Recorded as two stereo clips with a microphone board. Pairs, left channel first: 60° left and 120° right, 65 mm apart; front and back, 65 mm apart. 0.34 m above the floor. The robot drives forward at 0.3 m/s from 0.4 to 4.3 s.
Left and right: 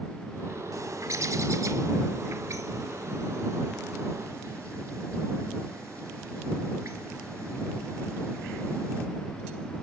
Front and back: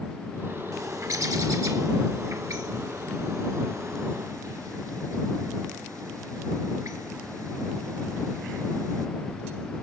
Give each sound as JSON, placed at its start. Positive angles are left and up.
{"t": 0.7, "sound": "a bird", "azimuth_deg": -150, "distance_m": 0.7}